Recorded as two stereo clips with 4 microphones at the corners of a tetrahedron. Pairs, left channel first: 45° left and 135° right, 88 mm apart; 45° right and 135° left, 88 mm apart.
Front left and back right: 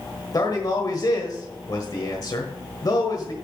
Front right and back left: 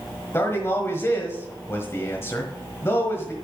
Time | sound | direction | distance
0.3 | a man speaking | 10° left | 1.4 m